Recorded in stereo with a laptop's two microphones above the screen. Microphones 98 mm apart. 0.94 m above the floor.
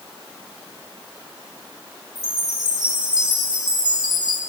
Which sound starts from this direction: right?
A chime, at 2.1 s.